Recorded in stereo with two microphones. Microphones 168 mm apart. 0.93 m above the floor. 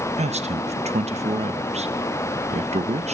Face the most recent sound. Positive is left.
turn(degrees=-40)  # may be behind; listen again after turning